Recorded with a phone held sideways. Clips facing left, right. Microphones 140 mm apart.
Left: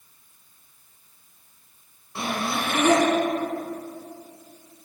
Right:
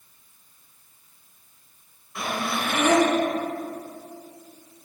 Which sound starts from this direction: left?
Breathing, at 2.1 s.